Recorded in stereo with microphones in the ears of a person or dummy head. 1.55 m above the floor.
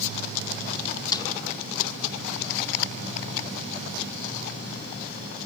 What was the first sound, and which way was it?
A snare drum, 25° left (ahead or behind).